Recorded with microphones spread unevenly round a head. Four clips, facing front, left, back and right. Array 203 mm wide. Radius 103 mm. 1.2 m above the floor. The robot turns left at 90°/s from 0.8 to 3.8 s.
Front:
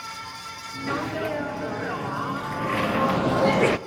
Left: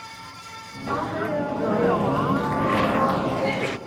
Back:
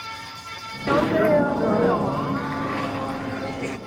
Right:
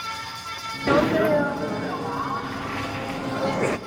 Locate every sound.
0.9 s a sneeze: 125° right, 0.6 m; by 3.8 s 25° right, 0.6 m